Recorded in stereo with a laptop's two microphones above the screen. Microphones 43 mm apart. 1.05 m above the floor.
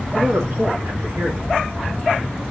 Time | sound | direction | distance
0.1 | a man speaking | 50° right (ahead or behind) | 2 m